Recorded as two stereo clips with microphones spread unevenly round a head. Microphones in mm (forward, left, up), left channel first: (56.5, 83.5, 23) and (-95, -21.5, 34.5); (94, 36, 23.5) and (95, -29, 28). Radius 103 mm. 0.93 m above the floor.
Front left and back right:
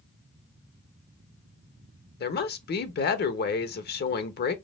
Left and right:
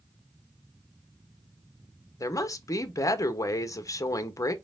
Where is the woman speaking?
60° left, 0.9 m.